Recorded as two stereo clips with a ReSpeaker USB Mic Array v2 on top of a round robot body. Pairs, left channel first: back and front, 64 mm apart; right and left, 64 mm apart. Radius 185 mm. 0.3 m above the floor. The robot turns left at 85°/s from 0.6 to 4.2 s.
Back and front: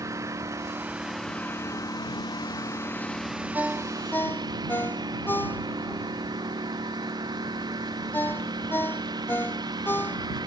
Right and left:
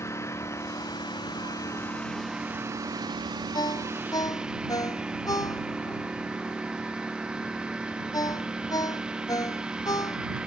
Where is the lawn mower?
40° right; by 10.5 s 15° left.